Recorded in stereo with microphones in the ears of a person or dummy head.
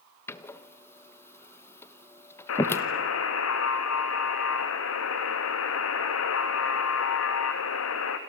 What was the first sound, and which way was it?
A door slam, 20° left (ahead or behind).